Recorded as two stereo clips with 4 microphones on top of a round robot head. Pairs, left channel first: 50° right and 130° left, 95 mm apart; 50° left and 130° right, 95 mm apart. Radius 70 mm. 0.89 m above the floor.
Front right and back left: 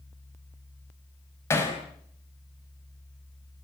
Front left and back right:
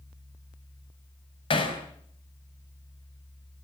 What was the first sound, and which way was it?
Hammering, 15° left.